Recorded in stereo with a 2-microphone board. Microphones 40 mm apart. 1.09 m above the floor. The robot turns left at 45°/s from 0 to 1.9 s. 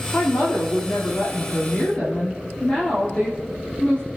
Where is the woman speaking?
115° left, 2 m; by 4.1 s 35° left, 2 m.